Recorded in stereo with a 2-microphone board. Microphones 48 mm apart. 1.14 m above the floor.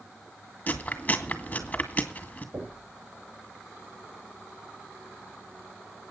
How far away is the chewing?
About 2.0 m.